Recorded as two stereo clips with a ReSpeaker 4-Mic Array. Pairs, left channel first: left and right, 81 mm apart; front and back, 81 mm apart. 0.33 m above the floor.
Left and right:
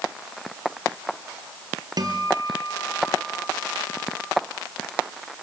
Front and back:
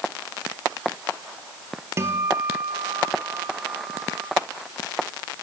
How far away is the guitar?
About 3 m.